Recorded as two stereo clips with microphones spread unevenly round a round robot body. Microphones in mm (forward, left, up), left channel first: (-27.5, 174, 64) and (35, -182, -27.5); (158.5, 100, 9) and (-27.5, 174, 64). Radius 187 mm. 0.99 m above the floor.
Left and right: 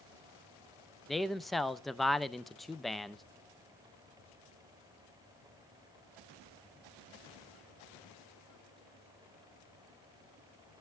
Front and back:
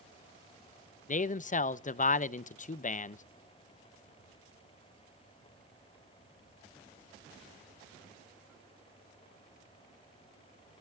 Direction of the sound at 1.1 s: Straight ahead.